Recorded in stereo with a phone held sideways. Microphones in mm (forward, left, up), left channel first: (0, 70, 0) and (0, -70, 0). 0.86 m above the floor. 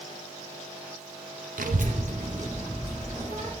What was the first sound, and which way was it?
A child speaking, 80° right.